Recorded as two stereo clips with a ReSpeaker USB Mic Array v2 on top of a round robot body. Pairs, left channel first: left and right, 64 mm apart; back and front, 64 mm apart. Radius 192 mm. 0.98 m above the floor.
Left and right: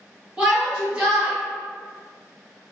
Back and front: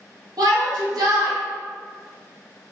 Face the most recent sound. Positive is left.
turn(degrees=-15)